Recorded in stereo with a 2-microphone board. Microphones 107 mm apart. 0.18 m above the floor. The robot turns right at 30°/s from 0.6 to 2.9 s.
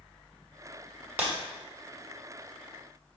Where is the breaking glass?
15° right (ahead or behind), 1.1 m; by 1.3 s 20° right (ahead or behind), 1.1 m.